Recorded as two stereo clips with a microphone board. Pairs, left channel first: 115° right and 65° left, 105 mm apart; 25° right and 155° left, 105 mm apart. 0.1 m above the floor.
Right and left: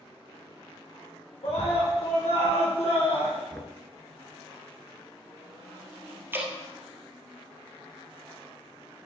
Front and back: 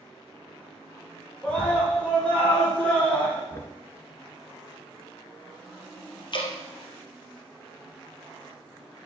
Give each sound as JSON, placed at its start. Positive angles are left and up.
{"t": 1.4, "sound": "a scream", "azimuth_deg": -100, "distance_m": 4.5}
{"t": 3.5, "sound": "knocking", "azimuth_deg": -35, "distance_m": 1.0}
{"t": 6.3, "sound": "dripping", "azimuth_deg": 5, "distance_m": 2.5}